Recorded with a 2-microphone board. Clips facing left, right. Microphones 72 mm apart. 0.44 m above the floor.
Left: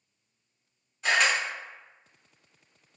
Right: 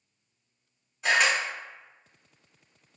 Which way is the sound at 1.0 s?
5° right (ahead or behind).